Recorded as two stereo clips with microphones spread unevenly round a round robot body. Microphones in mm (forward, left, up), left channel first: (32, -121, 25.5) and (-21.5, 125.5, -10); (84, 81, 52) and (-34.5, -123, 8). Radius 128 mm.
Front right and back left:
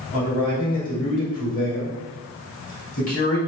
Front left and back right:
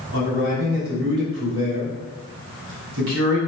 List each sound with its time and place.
0.1 s a man speaking: 135° right, 3.5 m